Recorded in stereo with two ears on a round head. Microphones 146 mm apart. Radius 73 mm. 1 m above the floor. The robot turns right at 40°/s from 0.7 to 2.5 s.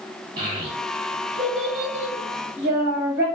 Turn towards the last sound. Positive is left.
turn(degrees=-60)  # may be behind; listen again after turning